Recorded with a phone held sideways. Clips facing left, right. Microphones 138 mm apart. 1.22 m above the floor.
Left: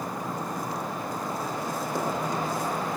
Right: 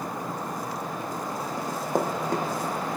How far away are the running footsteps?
About 2.5 m.